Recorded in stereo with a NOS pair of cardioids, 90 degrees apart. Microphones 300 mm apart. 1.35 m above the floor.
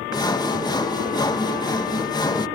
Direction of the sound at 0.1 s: 15° left.